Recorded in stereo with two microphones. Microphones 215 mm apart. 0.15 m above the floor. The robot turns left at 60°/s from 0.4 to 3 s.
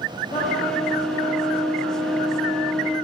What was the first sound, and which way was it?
A trumpet, 15° left.